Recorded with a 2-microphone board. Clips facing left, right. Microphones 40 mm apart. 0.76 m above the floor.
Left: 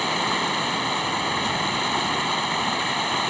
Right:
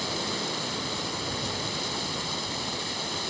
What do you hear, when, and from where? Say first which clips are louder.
0.0 s running water: left 8 dB; 45° left (ahead or behind)